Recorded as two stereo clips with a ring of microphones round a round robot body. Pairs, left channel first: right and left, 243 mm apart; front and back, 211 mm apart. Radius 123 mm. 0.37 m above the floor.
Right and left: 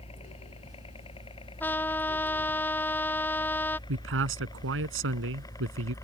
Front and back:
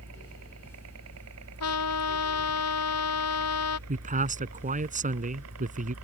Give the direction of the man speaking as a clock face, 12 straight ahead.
8 o'clock.